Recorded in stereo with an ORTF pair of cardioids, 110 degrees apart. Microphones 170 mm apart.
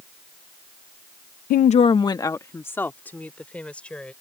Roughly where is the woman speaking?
Ahead left.